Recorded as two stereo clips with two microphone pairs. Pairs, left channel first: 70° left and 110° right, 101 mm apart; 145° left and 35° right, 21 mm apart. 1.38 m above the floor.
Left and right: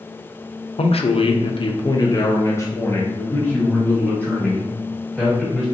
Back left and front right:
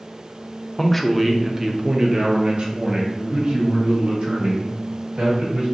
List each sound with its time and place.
0.8 s a man speaking: 70° left, 0.6 m; by 5.7 s 10° right, 2.5 m